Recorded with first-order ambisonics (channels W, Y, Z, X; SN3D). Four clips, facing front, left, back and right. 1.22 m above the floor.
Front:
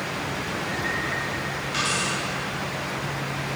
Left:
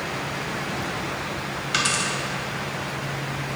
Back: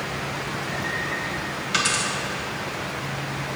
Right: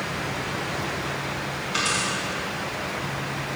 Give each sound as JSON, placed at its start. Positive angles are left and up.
{"t": 1.7, "sound": "a dropped coin", "azimuth_deg": 125, "distance_m": 2.5}